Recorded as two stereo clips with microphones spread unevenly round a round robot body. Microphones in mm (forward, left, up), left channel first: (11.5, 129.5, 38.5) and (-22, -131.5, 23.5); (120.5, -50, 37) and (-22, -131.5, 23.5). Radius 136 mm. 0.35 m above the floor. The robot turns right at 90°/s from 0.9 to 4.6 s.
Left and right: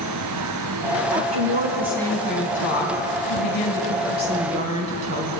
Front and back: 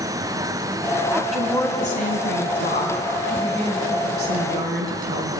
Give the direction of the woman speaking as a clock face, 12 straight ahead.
3 o'clock.